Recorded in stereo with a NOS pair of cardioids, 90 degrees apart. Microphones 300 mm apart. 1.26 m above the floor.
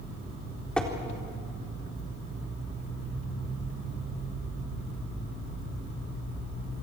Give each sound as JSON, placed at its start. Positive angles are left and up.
{"t": 0.8, "sound": "tapping", "azimuth_deg": 5, "distance_m": 3.5}